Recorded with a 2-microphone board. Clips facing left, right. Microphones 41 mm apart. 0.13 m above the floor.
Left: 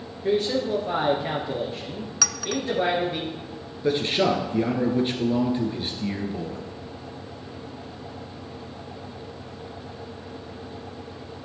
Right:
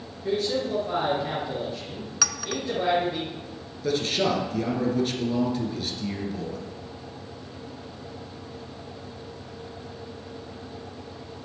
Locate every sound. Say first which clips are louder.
0.2 s a man speaking: left 3 dB; 35° left (ahead or behind), 2.5 m
2.2 s a clink: left 2 dB; 5° right (ahead or behind), 0.6 m
3.8 s a man speaking: left 3 dB; 25° left (ahead or behind), 2 m